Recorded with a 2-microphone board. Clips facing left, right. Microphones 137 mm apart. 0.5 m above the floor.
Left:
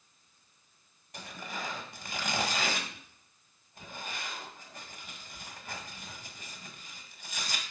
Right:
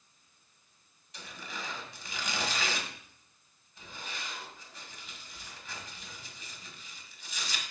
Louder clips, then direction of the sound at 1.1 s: Left 3 dB; 50° left (ahead or behind).